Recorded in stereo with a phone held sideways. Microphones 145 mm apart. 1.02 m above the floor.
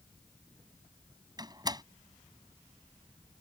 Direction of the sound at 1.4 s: 30° right (ahead or behind).